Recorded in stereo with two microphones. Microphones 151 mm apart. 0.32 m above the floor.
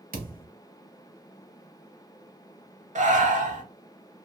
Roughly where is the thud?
Right.